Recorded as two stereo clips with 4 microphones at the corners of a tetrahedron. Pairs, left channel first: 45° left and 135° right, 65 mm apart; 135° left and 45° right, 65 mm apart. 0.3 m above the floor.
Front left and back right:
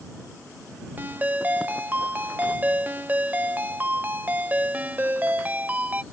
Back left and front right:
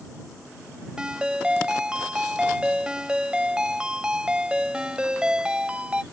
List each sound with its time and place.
1.0 s a ringtone: 105° right